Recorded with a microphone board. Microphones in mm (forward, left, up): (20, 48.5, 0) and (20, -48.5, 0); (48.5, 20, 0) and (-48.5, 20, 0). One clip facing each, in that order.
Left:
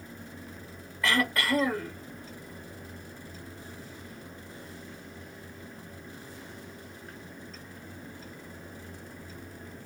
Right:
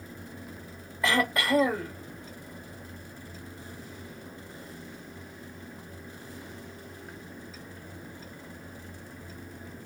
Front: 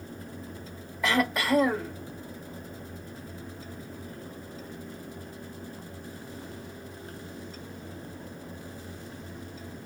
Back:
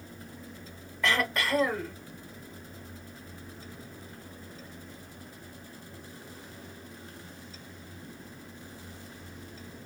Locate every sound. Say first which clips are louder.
1.0 s throat clearing: right 1 dB, front 3 dB; 65° right, 1.3 m